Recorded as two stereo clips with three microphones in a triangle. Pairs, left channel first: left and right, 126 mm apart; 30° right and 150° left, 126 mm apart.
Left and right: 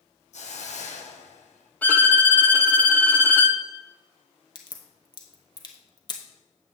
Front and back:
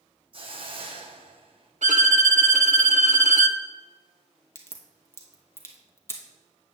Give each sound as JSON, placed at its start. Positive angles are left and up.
{"t": 0.3, "sound": "a hiss", "azimuth_deg": 110, "distance_m": 1.0}
{"t": 1.8, "sound": "a violin", "azimuth_deg": 165, "distance_m": 0.6}
{"t": 4.5, "sound": "a crack", "azimuth_deg": 40, "distance_m": 1.2}